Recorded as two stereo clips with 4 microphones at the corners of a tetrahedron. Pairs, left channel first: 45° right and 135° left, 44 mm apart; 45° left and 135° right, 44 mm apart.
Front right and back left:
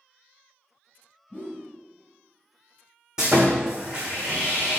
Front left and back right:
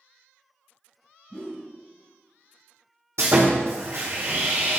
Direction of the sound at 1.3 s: 15° right.